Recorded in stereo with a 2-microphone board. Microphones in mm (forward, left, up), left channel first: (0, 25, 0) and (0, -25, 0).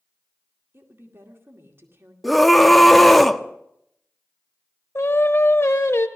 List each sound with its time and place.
0.7 s a woman speaking: 55° right (ahead or behind), 2 m
2.2 s a scream: centre (ahead or behind), 0.8 m
5.0 s singing: 60° left (ahead or behind), 1.0 m